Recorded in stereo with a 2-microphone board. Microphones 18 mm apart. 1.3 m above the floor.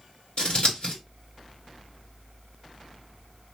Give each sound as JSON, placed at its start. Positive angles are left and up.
{"t": 0.4, "sound": "scissors", "side_deg": 65, "distance_m": 1.9}